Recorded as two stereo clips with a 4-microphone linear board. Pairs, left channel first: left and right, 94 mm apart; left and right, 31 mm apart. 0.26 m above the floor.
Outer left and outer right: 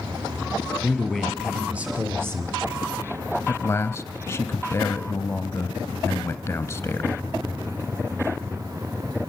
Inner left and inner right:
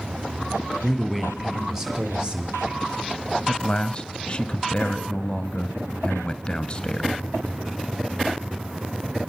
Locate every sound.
0.8 s a man speaking: centre (ahead or behind), 4.5 m; by 2.9 s 35° right (ahead or behind), 3.5 m
3.5 s a man speaking: 30° left (ahead or behind), 1.1 m